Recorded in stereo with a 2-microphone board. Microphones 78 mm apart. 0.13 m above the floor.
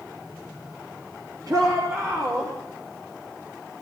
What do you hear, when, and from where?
1.5 s a shout: 50° right (ahead or behind), 3 m; by 2.5 s 35° right (ahead or behind), 3 m